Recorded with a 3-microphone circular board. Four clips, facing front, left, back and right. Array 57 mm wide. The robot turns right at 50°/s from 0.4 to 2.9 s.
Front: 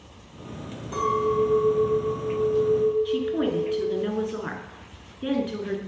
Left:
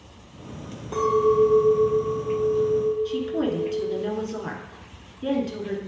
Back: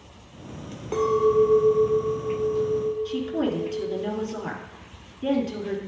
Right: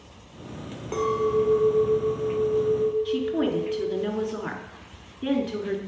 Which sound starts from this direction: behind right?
A clink, at 0.9 s.